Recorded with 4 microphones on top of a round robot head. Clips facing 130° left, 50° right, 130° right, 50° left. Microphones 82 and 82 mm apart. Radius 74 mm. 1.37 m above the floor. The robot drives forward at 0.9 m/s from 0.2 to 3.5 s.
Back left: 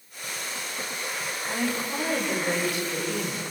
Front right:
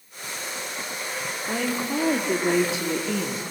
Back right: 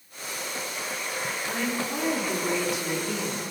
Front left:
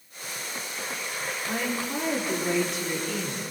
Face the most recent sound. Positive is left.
turn(degrees=-50)